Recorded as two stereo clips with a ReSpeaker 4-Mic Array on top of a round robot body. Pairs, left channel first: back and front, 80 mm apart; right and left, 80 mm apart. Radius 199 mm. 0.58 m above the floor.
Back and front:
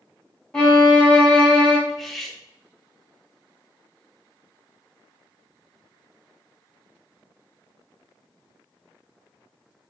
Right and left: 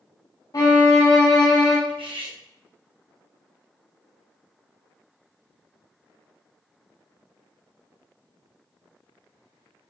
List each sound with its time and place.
0.5 s a violin: 105° right, 1.5 m
1.9 s cutlery clinking: 90° left, 0.9 m